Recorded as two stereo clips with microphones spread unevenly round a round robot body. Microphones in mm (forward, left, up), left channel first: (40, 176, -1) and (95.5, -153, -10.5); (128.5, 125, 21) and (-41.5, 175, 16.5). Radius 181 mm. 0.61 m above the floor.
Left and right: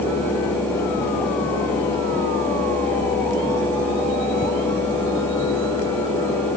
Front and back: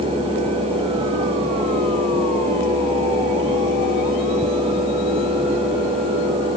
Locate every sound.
Only background noise.